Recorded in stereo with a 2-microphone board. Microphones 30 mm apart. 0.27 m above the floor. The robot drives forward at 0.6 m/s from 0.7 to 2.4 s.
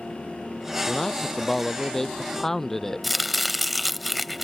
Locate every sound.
0.9 s a man speaking: 10° left (ahead or behind)
3.0 s chopping: centre (ahead or behind)